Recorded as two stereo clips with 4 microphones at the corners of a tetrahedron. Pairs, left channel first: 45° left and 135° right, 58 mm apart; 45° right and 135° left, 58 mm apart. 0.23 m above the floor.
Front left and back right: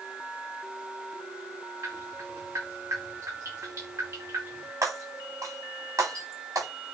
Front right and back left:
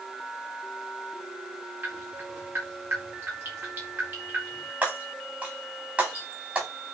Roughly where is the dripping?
Behind.